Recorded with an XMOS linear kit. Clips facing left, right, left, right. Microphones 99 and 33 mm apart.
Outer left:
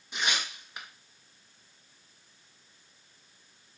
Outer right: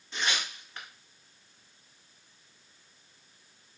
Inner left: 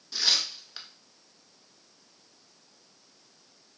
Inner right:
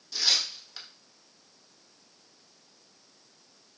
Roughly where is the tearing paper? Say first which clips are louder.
Even, even; centre.